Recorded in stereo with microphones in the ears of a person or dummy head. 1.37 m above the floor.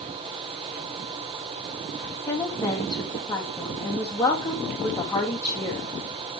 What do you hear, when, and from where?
2.3 s a woman speaking: 20° left (ahead or behind), 2.5 m